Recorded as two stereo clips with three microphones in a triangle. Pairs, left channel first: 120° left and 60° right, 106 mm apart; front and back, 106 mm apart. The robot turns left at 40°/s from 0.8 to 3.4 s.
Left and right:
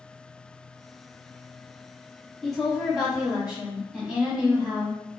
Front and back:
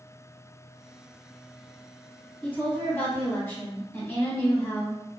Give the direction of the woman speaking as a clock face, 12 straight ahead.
11 o'clock.